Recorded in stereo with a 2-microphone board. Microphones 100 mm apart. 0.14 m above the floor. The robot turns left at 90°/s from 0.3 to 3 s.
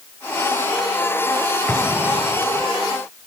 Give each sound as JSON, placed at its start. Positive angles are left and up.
{"t": 1.7, "sound": "an explosion", "azimuth_deg": 25}